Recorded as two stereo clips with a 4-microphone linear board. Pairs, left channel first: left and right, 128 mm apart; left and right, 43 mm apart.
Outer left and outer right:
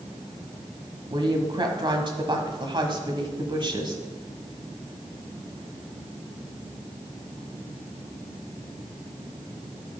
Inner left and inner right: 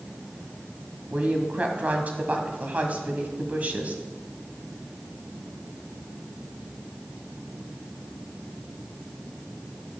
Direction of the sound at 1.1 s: 40° right (ahead or behind).